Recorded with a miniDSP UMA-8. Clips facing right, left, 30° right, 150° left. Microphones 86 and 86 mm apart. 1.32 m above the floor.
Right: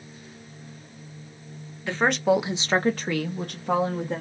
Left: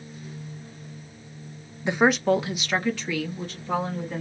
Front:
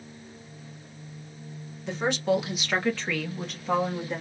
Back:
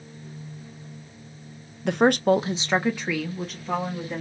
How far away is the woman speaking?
About 0.6 m.